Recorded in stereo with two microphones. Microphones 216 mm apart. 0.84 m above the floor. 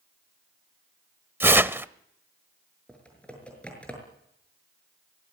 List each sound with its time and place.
1.4 s tearing paper: 10° right (ahead or behind), 0.7 m
2.9 s typing on a keyboard: 5° left (ahead or behind), 6.5 m